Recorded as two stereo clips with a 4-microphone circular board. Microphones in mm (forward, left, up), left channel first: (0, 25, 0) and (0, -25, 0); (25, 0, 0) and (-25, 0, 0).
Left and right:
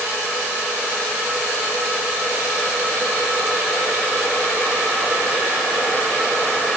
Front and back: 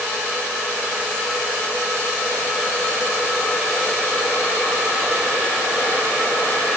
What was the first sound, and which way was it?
Only background noise.